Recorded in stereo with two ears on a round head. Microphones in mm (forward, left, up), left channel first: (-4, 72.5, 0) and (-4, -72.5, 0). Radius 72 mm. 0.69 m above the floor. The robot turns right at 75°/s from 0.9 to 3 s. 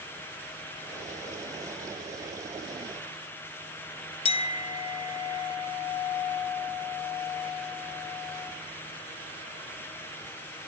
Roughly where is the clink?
Left.